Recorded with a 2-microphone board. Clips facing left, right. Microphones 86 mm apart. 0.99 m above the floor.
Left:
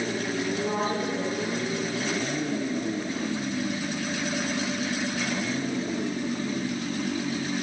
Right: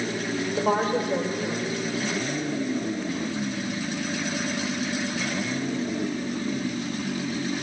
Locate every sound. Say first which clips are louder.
0.6 s a woman speaking: right 4 dB; 80° right, 4 m